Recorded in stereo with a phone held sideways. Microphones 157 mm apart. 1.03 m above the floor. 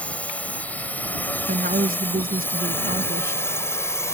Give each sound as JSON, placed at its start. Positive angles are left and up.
{"t": 0.0, "sound": "a drone", "side_deg": 10}
{"t": 1.5, "sound": "a woman speaking", "side_deg": -70}